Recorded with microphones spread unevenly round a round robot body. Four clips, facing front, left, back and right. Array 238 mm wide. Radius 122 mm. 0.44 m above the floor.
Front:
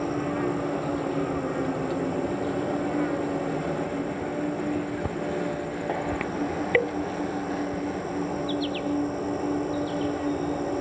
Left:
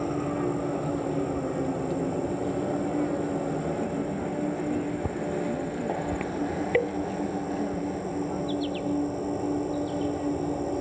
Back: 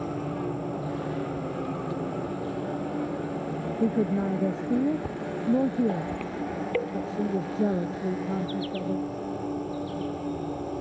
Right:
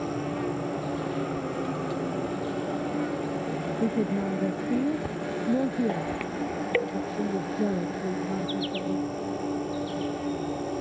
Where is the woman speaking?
150° right.